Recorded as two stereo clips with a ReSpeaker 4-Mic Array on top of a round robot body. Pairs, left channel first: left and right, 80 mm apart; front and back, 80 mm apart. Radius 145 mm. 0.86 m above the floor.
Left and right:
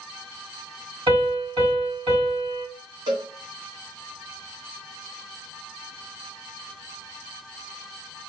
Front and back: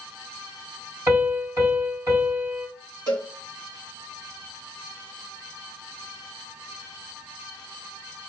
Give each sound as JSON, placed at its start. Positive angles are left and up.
{"t": 1.1, "sound": "a piano", "azimuth_deg": -125, "distance_m": 3.5}
{"t": 3.1, "sound": "a cowbell", "azimuth_deg": -135, "distance_m": 3.0}